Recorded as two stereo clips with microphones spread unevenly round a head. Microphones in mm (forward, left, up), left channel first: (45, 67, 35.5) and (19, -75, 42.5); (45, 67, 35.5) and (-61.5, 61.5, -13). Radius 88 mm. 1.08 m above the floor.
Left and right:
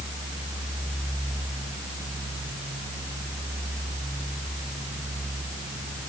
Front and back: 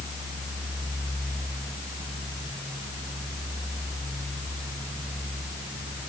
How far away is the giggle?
No giggle in this recording.